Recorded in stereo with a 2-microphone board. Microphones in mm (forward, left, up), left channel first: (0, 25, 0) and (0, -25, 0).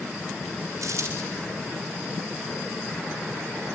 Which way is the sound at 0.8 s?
75° right (ahead or behind).